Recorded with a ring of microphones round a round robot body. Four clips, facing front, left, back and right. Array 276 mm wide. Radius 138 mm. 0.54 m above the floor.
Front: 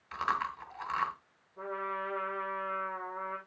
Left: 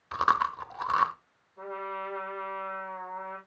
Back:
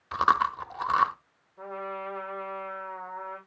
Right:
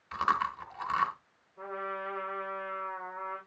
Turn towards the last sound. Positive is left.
turn(degrees=20)